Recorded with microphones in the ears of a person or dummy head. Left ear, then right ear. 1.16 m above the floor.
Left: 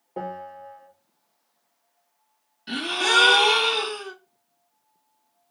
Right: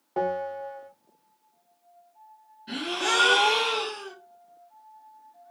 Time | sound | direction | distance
0.2 | a bell | 35° right (ahead or behind) | 0.8 m
2.7 | a gasp | 45° left (ahead or behind) | 1.0 m